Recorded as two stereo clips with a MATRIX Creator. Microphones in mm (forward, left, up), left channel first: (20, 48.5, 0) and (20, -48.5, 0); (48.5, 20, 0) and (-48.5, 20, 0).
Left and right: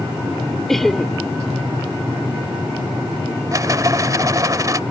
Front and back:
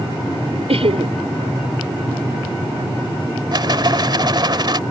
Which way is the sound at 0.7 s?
Straight behind.